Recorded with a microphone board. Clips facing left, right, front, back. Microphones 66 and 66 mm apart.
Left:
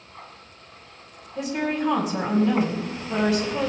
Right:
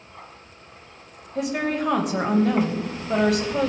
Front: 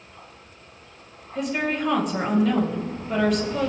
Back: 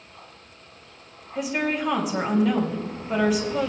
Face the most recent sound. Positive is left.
turn(degrees=-95)